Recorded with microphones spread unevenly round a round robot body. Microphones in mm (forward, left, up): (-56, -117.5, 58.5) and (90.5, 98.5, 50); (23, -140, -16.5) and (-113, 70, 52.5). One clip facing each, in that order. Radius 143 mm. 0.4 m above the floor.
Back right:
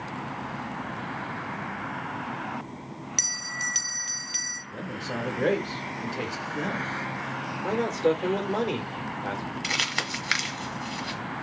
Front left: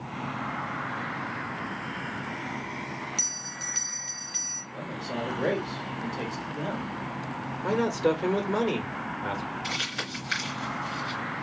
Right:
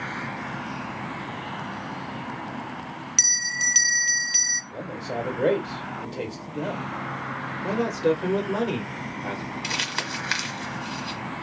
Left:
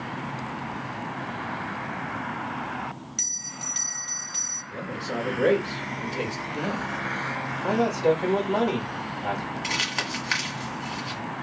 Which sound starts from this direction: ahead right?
A bell, at 3.2 s.